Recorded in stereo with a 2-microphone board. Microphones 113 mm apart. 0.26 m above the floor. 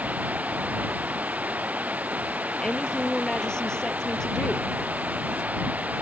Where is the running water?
15° right (ahead or behind).